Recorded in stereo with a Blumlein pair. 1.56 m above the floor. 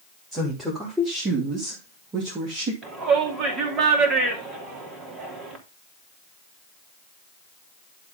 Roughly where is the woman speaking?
Ahead.